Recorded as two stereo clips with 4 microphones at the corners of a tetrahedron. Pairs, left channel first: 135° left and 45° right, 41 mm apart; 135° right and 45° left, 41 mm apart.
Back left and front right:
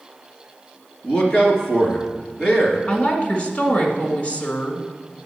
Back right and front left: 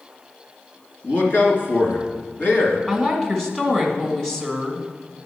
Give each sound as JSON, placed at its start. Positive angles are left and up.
{"t": 1.0, "sound": "a man speaking", "azimuth_deg": -160, "distance_m": 2.5}
{"t": 2.9, "sound": "a woman speaking", "azimuth_deg": 155, "distance_m": 1.8}